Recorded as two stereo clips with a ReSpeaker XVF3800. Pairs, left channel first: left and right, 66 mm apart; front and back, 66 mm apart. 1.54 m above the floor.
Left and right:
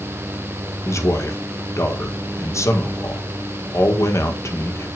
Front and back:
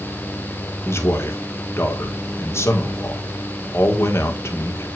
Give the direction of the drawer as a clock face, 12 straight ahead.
I don't hear a drawer.